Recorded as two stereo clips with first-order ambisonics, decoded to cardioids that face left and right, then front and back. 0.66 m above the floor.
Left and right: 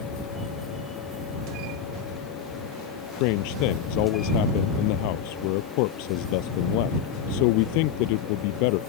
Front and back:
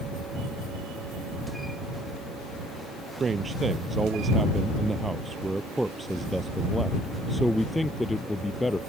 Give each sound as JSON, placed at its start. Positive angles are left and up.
{"t": 3.2, "sound": "a man speaking", "azimuth_deg": 105}